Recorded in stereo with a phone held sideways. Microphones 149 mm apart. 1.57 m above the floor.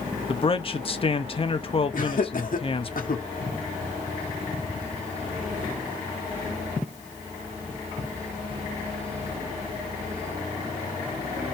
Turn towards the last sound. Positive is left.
turn(degrees=65)  # may be behind; listen again after turning